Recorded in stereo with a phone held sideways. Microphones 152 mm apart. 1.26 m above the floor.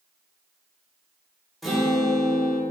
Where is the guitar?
Centre (ahead or behind), 2.5 m.